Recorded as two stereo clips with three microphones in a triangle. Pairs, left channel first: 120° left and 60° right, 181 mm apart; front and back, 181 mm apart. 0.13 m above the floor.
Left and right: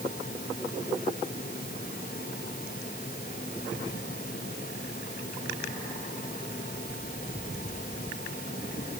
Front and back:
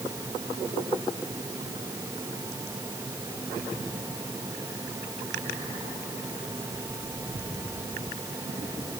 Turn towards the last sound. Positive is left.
No sound to turn to.